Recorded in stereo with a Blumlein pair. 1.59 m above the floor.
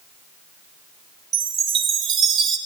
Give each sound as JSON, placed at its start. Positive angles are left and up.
{"t": 1.3, "sound": "a chime", "azimuth_deg": -25, "distance_m": 0.9}